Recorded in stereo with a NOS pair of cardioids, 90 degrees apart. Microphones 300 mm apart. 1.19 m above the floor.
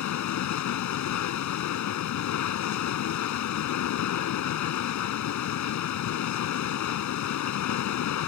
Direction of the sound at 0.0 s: 70° left.